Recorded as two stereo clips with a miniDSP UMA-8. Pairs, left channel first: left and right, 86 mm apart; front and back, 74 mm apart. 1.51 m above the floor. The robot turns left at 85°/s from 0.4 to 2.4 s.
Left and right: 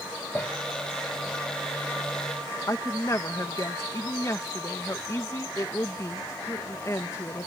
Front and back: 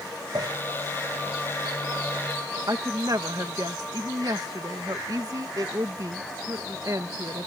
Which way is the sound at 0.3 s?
155° left.